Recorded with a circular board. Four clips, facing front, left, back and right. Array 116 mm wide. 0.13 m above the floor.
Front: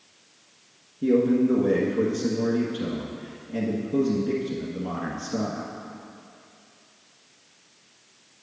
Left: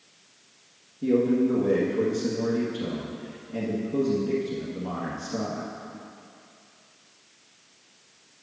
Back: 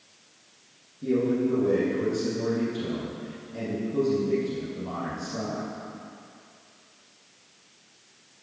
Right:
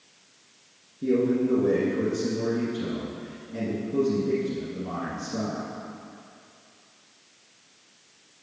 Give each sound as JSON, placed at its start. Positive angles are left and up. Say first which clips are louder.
{"t": 1.0, "sound": "a man speaking", "louder": "left 1 dB, front 4 dB", "azimuth_deg": 5, "distance_m": 1.5}